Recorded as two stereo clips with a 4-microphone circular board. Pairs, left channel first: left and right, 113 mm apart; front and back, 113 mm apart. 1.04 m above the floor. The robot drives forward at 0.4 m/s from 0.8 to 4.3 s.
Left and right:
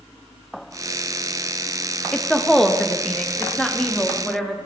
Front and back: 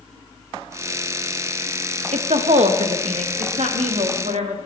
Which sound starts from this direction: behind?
A woman speaking, at 2.1 s.